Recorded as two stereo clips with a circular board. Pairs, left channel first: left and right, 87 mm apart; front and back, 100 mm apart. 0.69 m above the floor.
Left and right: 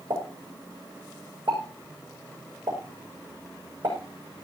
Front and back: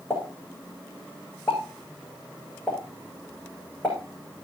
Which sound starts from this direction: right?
A pop, at 0.1 s.